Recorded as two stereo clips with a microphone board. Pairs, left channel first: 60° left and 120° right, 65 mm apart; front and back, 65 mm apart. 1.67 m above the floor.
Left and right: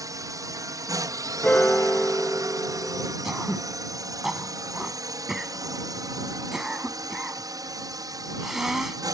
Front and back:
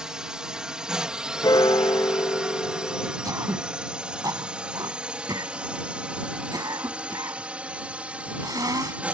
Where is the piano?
10° right.